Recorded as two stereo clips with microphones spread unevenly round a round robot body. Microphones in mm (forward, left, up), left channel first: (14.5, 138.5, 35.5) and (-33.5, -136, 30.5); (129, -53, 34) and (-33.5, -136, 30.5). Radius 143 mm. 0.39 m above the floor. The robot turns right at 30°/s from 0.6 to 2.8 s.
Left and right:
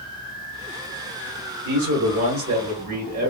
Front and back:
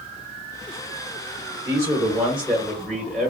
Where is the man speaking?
95° right, 1.0 m; by 3.3 s 60° right, 1.0 m.